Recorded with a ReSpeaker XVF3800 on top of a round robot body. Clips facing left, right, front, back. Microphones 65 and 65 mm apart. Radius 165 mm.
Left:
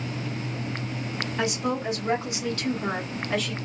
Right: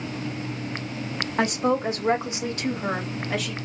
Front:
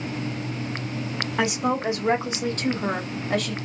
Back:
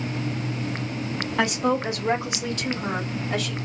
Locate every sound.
1.4 s a woman speaking: 80° right, 1.3 m; by 3.5 s 5° right, 1.5 m